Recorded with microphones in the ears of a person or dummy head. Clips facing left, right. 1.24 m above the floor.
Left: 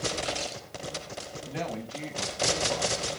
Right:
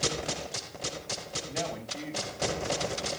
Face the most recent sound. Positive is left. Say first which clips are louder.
# left 1 dB
turn(degrees=85)